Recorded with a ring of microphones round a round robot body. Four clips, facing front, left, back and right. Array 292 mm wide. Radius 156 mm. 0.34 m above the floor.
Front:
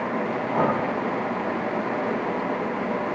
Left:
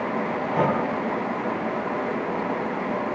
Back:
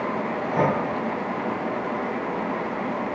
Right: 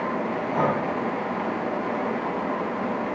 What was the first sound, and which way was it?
Breathing, 145° left.